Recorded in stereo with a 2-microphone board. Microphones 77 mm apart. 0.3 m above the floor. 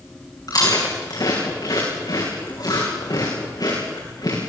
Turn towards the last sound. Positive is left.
turn(degrees=60)  # may be behind; listen again after turning